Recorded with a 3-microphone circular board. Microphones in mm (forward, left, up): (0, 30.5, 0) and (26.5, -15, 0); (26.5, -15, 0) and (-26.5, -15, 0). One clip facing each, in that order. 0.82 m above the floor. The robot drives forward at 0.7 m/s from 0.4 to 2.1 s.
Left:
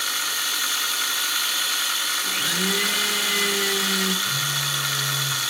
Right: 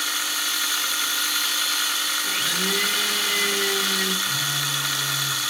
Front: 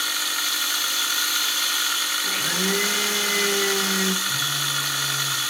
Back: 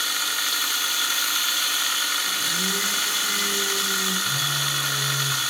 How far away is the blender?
About 0.7 m.